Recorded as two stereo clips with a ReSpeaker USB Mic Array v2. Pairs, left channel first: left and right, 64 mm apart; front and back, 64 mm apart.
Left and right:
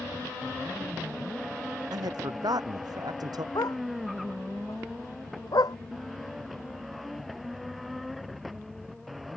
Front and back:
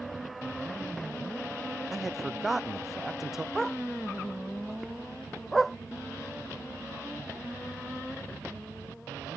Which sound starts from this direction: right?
A man speaking, at 1.9 s.